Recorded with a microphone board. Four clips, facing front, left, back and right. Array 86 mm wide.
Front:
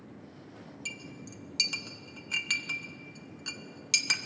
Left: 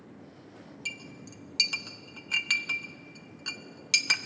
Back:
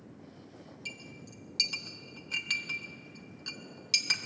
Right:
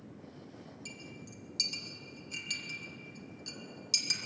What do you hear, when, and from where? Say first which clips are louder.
0.8 s a clink: left 4 dB, front 3 dB; 75° left, 0.6 m